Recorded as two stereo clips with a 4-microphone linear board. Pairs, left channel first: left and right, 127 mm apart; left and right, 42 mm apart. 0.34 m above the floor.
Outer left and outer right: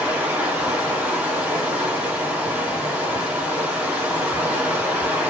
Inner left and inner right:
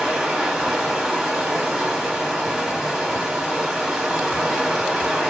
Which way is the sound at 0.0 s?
10° right (ahead or behind).